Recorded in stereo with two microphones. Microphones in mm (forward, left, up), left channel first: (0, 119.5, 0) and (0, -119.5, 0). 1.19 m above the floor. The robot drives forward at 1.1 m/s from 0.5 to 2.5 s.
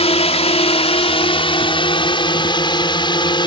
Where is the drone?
25° left (ahead or behind); by 3.5 s 20° left (ahead or behind).